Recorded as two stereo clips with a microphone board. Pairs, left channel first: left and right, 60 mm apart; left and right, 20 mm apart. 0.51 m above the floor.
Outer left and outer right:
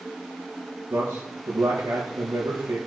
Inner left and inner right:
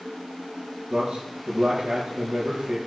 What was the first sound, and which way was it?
A man speaking, 85° right.